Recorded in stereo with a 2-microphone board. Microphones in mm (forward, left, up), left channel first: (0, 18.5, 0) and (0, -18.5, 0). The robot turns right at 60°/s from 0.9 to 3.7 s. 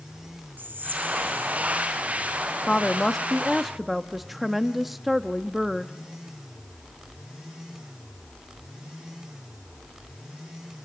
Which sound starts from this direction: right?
Whispering, at 0.6 s.